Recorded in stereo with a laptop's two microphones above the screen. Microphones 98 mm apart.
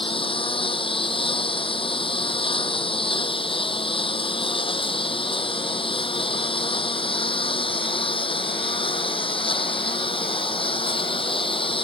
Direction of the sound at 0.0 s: 65° left (ahead or behind).